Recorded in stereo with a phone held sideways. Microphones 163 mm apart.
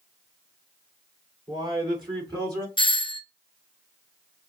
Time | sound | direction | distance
1.5 | a man speaking | 30° right (ahead or behind) | 3.5 m
2.8 | a doorbell | 30° left (ahead or behind) | 0.6 m